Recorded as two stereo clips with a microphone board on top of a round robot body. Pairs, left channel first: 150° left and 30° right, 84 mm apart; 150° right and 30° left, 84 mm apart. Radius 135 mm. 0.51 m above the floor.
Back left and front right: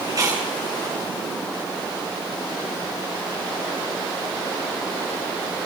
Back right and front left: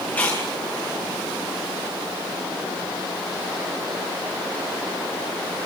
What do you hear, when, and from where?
0.1 s chewing: 80° right, 7.5 m